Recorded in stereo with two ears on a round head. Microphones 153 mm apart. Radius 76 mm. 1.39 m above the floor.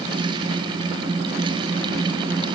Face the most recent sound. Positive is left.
No sound to turn to.